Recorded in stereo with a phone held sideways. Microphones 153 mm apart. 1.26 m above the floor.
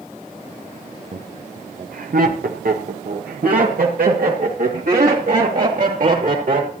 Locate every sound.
1.1 s laughter: 60° right (ahead or behind), 0.8 m; by 6.7 s 65° right (ahead or behind), 4 m